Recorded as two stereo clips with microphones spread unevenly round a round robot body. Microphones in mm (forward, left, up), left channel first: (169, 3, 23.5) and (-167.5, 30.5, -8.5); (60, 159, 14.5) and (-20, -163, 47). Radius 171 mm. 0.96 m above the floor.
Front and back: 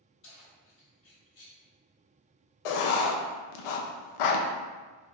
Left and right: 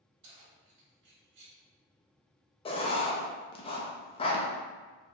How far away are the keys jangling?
About 1.7 m.